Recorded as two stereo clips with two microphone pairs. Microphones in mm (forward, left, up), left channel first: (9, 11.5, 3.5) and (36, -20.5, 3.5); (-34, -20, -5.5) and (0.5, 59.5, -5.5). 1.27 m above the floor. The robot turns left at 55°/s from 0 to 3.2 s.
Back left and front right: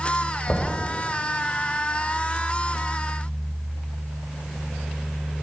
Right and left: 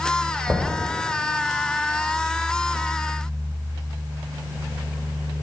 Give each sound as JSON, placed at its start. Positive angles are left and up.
{"t": 0.5, "sound": "knocking", "azimuth_deg": 135, "distance_m": 3.5}